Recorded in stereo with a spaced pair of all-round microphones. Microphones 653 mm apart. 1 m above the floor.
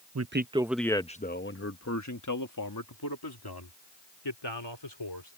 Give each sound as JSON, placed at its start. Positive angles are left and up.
{"t": 0.1, "sound": "a man speaking", "side_deg": -30}